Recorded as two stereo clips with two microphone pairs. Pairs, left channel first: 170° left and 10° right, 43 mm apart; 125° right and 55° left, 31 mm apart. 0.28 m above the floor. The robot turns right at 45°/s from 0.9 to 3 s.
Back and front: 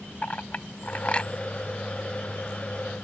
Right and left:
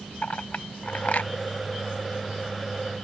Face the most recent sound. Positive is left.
turn(degrees=-50)